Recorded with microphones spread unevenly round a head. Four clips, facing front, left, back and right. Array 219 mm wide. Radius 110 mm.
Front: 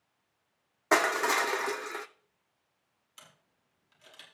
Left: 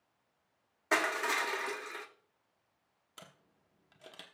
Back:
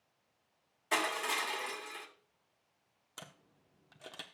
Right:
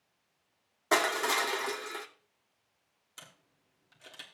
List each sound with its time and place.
0.9 s crushing: 15° right, 0.7 m
3.2 s a camera shutter: 170° left, 1.1 m